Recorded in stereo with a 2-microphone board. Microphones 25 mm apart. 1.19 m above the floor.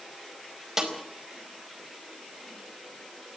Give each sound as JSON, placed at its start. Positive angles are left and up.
{"t": 0.8, "sound": "a snare drum", "side_deg": -20, "distance_m": 4.5}